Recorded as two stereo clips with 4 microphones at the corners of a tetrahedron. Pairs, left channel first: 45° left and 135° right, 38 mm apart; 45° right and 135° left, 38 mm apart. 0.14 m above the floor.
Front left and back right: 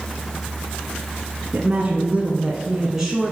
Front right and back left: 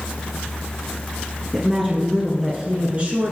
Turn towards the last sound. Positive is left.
turn(degrees=140)